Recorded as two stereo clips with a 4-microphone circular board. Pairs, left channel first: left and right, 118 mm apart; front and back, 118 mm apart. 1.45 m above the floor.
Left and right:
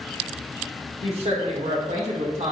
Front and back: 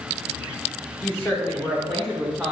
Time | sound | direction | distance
1.0 | a woman speaking | 65° right | 1.2 m